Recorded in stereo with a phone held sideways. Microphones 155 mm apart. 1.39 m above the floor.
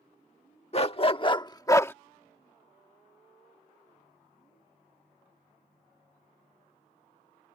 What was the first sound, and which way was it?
A dog barking, 40° left (ahead or behind).